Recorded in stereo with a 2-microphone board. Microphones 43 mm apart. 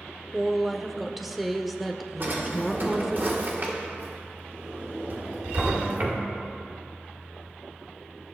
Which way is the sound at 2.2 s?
50° right (ahead or behind).